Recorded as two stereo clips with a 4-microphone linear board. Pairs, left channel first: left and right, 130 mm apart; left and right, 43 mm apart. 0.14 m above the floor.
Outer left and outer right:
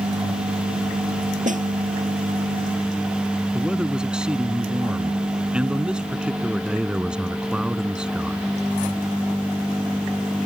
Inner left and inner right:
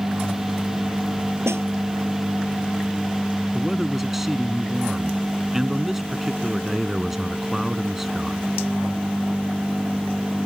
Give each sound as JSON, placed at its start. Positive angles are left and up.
{"t": 1.4, "sound": "a snare drum", "side_deg": -65}
{"t": 3.5, "sound": "a man speaking", "side_deg": -5}